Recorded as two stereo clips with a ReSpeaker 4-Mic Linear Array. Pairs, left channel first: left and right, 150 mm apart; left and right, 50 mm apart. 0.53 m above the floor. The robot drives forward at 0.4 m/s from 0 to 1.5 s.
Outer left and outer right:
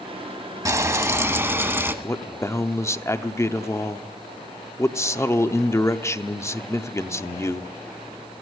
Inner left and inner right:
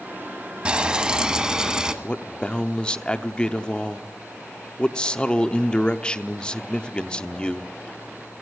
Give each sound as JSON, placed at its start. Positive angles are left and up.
{"t": 0.7, "sound": "frying", "side_deg": -25, "distance_m": 0.8}
{"t": 2.0, "sound": "a man speaking", "side_deg": 20, "distance_m": 0.7}